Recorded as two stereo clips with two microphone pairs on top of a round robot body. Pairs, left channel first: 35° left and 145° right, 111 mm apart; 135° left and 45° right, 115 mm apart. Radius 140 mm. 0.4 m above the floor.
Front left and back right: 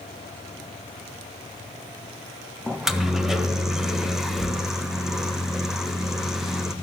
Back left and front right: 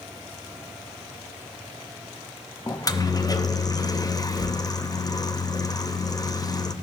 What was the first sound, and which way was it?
A microwave, 110° left.